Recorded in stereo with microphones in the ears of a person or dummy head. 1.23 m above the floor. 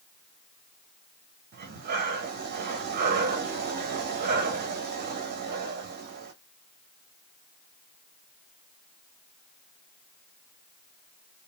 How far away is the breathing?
About 0.9 m.